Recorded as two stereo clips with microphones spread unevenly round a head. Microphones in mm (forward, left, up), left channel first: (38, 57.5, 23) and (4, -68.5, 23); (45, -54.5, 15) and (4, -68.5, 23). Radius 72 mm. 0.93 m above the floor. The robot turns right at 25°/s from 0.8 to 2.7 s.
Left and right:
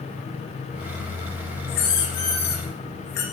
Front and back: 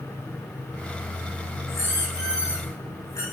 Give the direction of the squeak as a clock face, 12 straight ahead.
10 o'clock.